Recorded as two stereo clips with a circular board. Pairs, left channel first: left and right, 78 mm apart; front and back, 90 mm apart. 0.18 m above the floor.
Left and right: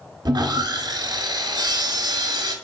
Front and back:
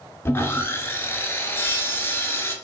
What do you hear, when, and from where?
0.2 s sawing: 60° right, 0.5 m